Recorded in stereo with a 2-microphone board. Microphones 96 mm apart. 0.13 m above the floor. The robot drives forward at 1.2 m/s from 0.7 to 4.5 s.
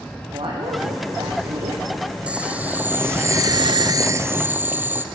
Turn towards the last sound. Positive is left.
turn(degrees=-20)  # may be behind; listen again after turning